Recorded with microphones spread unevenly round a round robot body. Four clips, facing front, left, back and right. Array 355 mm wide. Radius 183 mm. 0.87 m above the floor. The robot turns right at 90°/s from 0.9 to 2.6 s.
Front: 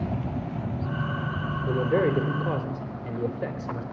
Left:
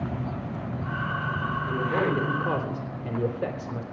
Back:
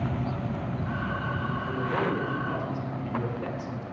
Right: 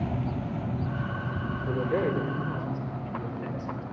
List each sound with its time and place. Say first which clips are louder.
1.7 s a man speaking: even, front 6 dB; 20° right, 3.5 m; by 3.8 s 65° left, 3.5 m